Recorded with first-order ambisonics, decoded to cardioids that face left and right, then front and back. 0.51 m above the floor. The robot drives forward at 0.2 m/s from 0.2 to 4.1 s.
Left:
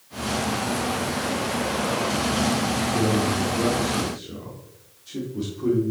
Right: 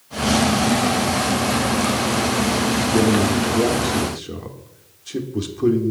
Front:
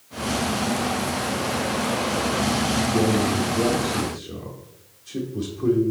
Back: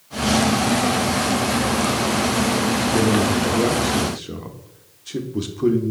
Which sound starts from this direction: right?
A man speaking, at 2.9 s.